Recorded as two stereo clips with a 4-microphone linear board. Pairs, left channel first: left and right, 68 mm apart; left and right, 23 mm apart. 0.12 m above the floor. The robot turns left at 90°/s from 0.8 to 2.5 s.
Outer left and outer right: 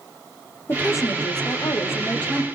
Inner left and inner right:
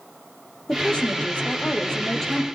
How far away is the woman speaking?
About 4 m.